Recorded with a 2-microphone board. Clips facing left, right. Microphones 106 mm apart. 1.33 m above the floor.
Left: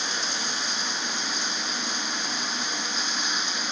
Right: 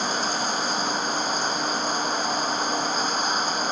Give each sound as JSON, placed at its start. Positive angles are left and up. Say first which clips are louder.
{"t": 0.0, "sound": "running water", "louder": "right 7 dB", "side_deg": -40}